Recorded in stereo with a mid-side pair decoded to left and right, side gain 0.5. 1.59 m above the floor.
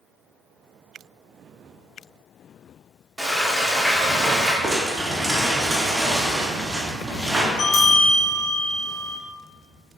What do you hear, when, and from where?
3.2 s frying: 10° right, 1.5 m
4.6 s crumpling: 25° right, 1.7 m
7.6 s a bell: 60° left, 1.6 m